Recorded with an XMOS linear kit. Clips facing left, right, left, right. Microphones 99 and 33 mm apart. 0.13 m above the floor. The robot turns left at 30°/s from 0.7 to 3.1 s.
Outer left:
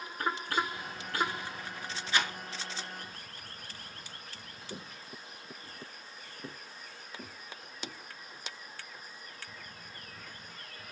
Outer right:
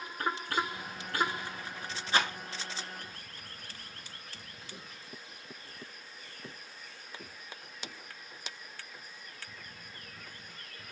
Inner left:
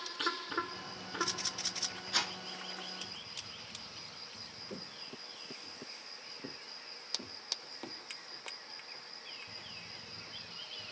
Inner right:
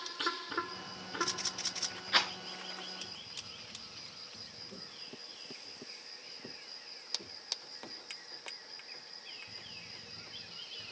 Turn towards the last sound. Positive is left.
turn(degrees=85)